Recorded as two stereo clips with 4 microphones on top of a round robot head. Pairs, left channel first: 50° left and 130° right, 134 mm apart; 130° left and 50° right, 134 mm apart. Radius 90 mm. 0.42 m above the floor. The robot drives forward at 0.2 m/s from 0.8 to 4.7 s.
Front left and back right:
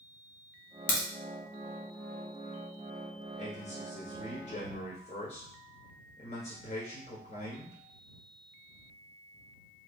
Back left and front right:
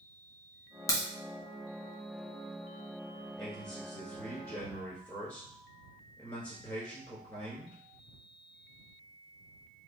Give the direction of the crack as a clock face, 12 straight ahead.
10 o'clock.